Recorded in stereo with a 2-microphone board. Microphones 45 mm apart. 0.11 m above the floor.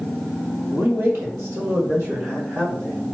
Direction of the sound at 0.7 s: 55° right (ahead or behind).